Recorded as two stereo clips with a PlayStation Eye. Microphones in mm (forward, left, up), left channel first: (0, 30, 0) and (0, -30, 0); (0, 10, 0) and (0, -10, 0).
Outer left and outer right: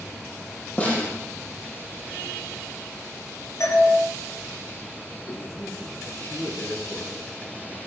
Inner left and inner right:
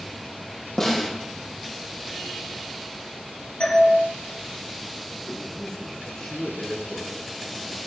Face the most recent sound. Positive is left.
turn(degrees=35)  # may be behind; listen again after turning